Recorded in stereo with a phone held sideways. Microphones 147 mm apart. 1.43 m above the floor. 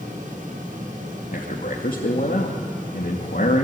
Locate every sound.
0.0 s a fan: 65° right (ahead or behind), 8 m
1.3 s a man speaking: 90° left, 2.5 m